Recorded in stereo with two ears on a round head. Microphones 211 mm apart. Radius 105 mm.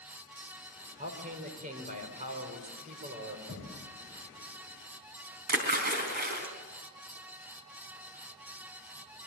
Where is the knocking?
30° right (ahead or behind), 5 m.